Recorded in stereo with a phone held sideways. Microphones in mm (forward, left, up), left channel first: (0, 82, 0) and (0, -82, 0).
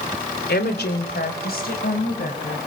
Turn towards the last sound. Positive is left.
turn(degrees=65)  # may be behind; listen again after turning